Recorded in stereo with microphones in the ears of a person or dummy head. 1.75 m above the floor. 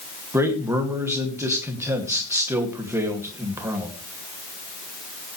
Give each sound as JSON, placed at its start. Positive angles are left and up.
{"t": 0.3, "sound": "a man speaking", "side_deg": -15, "distance_m": 2.5}